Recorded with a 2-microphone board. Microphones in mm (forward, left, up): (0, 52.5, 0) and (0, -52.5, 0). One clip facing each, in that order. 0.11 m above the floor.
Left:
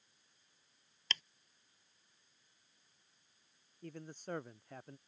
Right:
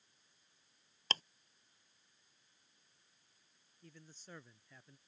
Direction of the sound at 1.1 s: 40° right (ahead or behind).